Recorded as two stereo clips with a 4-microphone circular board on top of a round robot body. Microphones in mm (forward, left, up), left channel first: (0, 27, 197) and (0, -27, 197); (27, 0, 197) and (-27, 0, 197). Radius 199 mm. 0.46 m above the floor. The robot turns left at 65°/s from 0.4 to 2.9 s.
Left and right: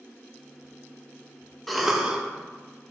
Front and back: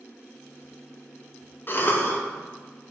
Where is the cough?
5° left, 0.9 m; by 2.2 s 30° right, 0.9 m.